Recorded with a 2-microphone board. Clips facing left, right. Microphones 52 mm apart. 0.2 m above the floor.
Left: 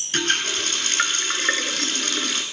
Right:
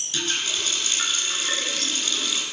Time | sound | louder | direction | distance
0.1 | a running tap | left 4 dB | 55° left (ahead or behind) | 1.5 m